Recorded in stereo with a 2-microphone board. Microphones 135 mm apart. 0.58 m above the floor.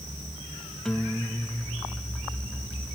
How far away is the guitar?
About 1.2 m.